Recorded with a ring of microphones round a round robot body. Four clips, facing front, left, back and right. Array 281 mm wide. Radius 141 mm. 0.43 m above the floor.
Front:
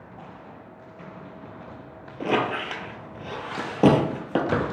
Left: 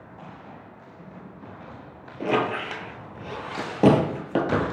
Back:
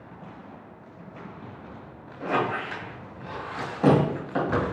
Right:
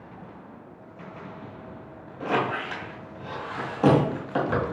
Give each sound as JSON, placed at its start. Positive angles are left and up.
{"t": 2.2, "sound": "a squeak", "azimuth_deg": 40, "distance_m": 0.9}